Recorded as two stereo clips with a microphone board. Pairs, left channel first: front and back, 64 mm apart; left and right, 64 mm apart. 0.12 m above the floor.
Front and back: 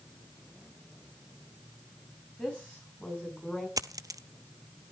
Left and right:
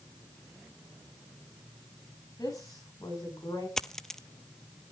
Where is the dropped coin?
170° left, 0.5 m.